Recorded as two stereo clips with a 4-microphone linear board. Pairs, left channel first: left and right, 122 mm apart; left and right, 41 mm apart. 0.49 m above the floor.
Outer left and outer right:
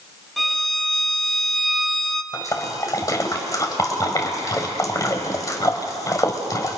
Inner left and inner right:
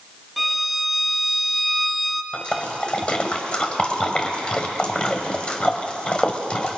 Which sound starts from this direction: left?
A splash, at 2.3 s.